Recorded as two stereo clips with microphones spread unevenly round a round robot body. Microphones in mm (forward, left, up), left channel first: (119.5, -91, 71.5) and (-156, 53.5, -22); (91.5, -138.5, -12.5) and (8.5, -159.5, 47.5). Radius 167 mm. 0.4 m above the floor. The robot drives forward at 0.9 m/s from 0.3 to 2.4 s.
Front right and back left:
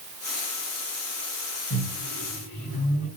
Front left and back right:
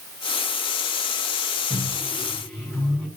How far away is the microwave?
About 4 m.